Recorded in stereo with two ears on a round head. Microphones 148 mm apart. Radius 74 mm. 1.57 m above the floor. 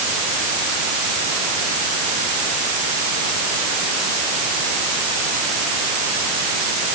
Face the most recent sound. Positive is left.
No sound to turn to.